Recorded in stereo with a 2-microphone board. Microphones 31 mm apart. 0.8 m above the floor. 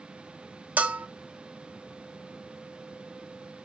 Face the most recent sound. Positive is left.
turn(degrees=-55)  # may be behind; listen again after turning